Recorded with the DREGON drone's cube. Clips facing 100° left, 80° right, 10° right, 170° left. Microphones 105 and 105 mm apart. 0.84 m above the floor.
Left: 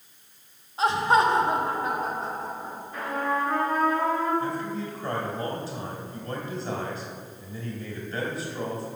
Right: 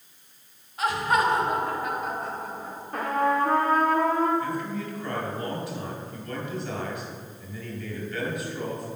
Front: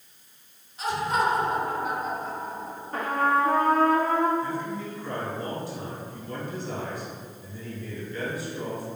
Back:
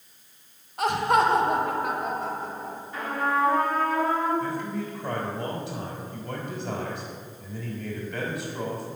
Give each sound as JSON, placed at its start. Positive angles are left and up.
{"t": 0.8, "sound": "laughter", "azimuth_deg": 160, "distance_m": 1.0}
{"t": 2.9, "sound": "a trumpet", "azimuth_deg": -50, "distance_m": 1.6}
{"t": 4.4, "sound": "a man speaking", "azimuth_deg": 155, "distance_m": 3.0}